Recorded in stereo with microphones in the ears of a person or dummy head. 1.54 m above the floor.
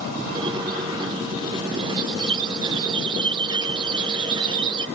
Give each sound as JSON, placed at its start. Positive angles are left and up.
{"t": 0.3, "sound": "a squeak", "side_deg": -25}